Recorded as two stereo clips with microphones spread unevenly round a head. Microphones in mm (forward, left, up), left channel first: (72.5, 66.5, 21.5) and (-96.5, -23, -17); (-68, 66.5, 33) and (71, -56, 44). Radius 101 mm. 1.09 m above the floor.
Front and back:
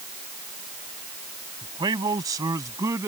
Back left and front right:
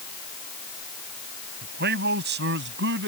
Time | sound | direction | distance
1.6 | a man speaking | 80° right | ?